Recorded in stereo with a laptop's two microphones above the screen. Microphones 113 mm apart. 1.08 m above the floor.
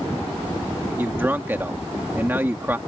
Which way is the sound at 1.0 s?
20° right (ahead or behind).